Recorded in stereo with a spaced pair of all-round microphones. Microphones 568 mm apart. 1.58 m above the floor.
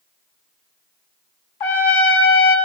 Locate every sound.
1.6 s a trumpet: 60° left (ahead or behind), 1.2 m